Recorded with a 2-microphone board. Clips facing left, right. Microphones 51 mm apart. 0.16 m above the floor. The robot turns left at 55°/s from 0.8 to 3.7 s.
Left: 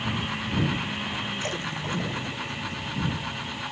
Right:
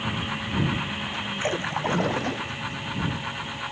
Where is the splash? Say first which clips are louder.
Right 5 dB; 25° right; by 2.5 s 85° right.